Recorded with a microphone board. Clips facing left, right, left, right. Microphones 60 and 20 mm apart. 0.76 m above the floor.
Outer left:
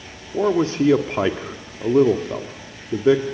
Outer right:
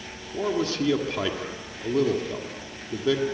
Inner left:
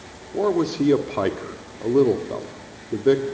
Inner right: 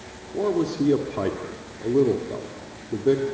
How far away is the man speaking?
About 1.6 m.